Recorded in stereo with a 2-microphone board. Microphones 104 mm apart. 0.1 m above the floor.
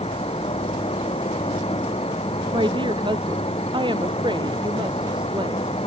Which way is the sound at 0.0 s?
80° left.